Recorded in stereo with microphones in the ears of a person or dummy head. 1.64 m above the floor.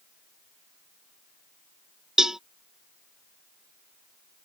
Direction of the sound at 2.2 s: Centre (ahead or behind).